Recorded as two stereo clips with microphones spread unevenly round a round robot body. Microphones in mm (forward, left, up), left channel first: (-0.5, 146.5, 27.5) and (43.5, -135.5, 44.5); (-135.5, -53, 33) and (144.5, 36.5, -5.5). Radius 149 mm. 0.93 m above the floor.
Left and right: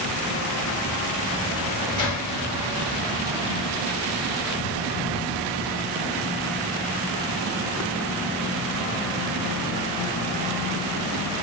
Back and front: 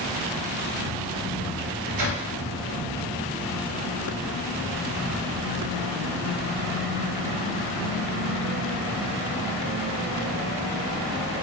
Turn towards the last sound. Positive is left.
turn(degrees=25)